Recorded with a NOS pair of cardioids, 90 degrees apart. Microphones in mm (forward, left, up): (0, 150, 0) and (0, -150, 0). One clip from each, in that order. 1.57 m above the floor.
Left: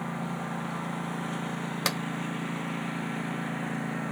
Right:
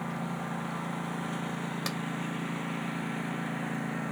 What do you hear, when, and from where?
0.0 s a lawn mower: 10° left
1.9 s a clap: 55° left